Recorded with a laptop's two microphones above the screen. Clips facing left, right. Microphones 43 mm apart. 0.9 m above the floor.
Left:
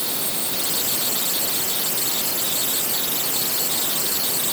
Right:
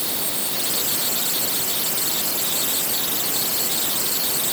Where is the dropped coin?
I don't hear a dropped coin.